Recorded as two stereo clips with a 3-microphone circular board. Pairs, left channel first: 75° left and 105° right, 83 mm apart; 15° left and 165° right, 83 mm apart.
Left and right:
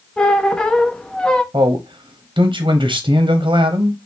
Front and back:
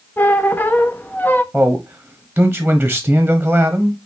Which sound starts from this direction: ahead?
A squeak, at 0.2 s.